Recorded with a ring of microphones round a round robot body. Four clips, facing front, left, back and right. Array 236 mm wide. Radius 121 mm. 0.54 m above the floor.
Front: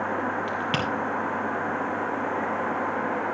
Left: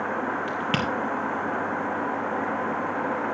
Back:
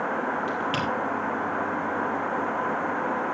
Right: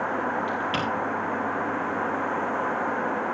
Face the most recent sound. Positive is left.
turn(degrees=65)